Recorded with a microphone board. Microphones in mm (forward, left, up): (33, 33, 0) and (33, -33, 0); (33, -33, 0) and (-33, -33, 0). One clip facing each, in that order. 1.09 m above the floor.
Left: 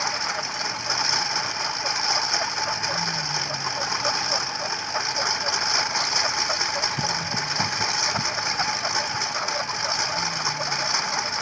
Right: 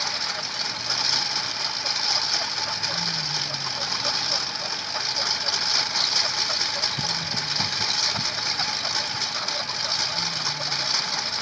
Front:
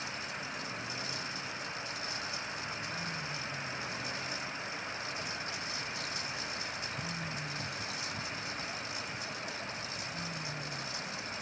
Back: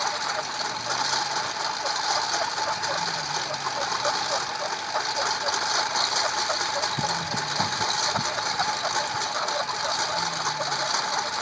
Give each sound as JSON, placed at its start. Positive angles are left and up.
{"t": 0.0, "sound": "a lawn mower", "azimuth_deg": 160}